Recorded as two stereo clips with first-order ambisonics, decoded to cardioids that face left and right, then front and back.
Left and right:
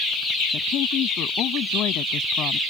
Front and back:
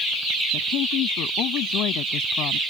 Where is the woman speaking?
40° left.